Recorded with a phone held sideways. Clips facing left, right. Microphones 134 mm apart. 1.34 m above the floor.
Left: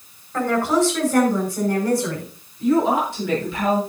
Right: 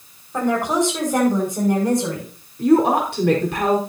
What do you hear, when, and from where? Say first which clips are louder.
0.3 s a woman speaking: even; 15° right (ahead or behind), 5.5 m; by 2.3 s 20° right (ahead or behind), 7 m
2.6 s a woman speaking: right 3 dB; 75° right (ahead or behind), 4.5 m